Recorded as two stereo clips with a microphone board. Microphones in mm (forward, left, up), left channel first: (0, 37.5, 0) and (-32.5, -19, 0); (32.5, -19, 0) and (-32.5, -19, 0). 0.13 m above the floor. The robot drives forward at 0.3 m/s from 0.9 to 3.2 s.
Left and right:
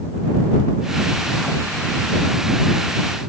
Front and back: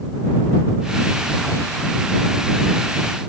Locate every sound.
Only background noise.